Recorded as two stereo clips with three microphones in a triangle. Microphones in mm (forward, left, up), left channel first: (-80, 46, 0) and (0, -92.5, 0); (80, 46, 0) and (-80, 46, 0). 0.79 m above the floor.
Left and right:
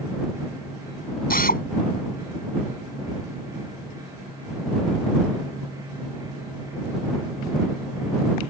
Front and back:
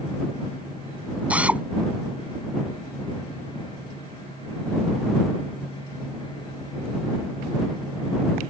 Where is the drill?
100° left.